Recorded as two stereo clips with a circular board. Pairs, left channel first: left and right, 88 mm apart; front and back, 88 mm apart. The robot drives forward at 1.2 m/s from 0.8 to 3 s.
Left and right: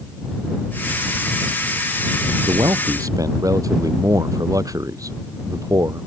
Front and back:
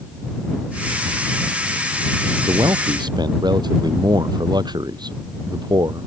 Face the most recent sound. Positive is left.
turn(degrees=-140)